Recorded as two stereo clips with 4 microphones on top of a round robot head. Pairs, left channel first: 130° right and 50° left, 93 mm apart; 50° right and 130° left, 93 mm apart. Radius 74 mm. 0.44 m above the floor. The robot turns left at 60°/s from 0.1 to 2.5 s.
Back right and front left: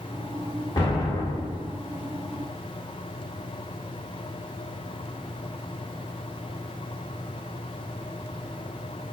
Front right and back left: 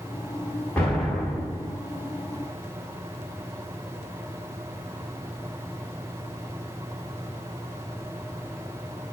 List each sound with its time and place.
0.8 s an explosion: 120° right, 1.7 m; by 1.8 s 175° left, 1.7 m